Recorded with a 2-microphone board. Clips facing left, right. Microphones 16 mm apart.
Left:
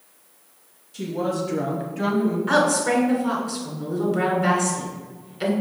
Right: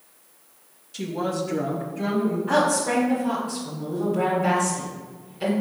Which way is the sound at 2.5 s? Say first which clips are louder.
Left 2 dB; 40° left (ahead or behind).